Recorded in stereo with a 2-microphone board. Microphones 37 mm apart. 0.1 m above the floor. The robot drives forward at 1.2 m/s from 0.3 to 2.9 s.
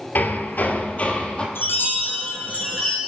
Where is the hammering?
55° left (ahead or behind), 0.9 m; by 1.4 s 30° left (ahead or behind), 1.5 m.